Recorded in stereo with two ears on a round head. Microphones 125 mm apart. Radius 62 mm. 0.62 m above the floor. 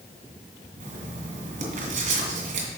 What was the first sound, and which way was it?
Writing, 60° right (ahead or behind).